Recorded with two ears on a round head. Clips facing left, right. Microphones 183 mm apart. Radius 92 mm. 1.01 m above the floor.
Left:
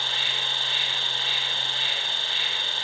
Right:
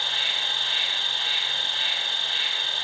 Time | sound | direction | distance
0.0 | an insect | 75° left (ahead or behind) | 1.4 m